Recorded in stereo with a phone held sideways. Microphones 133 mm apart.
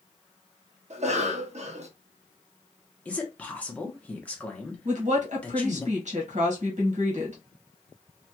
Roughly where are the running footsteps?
I don't hear running footsteps.